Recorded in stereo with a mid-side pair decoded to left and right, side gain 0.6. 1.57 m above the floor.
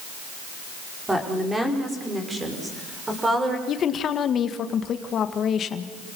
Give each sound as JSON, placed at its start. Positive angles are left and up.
{"t": 1.1, "sound": "a woman speaking", "azimuth_deg": -15, "distance_m": 5.0}
{"t": 3.7, "sound": "a woman speaking", "azimuth_deg": 45, "distance_m": 1.8}